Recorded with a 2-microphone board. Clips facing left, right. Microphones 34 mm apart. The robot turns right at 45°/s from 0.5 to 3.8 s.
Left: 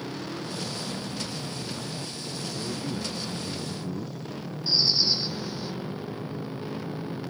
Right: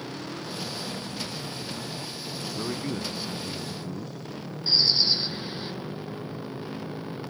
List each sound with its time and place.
2.5 s a man speaking: 50° right; by 4.2 s 10° left
4.7 s a bird: 30° right (ahead or behind)